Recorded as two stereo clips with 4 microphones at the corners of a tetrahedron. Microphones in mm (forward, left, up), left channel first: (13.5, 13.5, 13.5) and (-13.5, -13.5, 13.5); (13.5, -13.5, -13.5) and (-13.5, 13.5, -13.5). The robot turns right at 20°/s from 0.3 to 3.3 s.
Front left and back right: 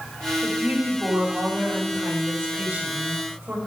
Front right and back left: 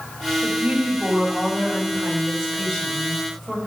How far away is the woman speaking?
About 4 m.